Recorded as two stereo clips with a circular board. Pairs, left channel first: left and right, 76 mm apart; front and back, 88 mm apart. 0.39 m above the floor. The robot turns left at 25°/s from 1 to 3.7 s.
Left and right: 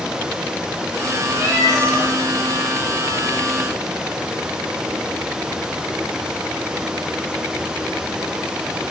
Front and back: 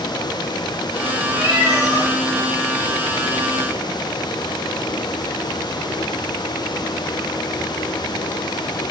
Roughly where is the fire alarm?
No fire alarm in this recording.